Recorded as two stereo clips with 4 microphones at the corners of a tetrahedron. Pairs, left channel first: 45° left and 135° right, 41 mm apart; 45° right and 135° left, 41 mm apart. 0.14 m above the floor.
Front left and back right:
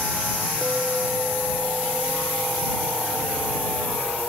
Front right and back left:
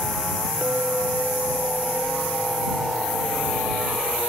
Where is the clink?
Straight behind.